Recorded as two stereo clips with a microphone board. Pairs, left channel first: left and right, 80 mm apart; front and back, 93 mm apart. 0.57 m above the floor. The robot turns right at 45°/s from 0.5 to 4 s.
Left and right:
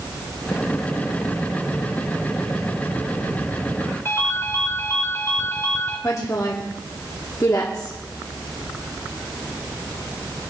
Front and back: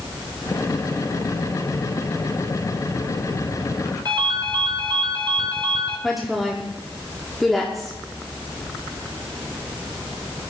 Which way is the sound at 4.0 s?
145° left.